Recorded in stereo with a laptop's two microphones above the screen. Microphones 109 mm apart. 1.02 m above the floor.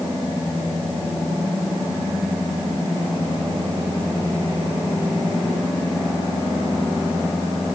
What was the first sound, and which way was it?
Only background noise.